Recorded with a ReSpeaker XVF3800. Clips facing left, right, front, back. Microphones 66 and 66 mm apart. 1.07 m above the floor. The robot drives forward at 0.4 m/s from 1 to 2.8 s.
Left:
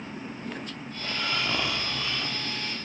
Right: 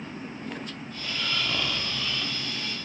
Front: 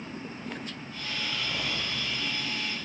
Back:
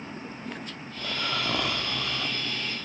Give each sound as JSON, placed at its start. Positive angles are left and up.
{"t": 1.0, "sound": "snoring", "azimuth_deg": 160, "distance_m": 1.7}